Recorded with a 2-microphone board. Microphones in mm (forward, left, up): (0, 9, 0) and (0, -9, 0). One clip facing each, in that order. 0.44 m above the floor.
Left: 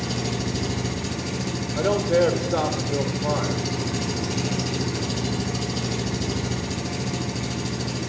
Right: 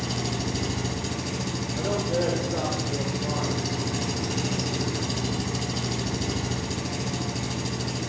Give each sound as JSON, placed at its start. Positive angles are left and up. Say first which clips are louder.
{"t": 0.0, "sound": "an engine running", "louder": "left 2 dB", "side_deg": 0, "distance_m": 1.2}
{"t": 1.8, "sound": "a man speaking", "louder": "left 7 dB", "side_deg": 50, "distance_m": 1.1}